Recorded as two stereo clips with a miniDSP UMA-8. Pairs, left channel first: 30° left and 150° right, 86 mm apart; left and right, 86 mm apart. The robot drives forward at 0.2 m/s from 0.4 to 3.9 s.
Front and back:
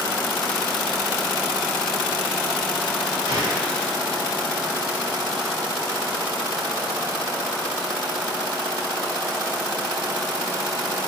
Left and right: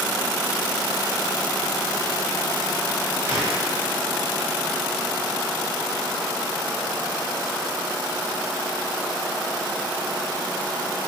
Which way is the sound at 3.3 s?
150° right.